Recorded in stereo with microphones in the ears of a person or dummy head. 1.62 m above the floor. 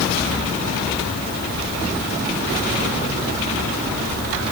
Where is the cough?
I don't hear a cough.